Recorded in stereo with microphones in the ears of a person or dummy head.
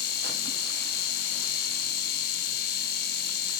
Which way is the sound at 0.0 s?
60° left (ahead or behind).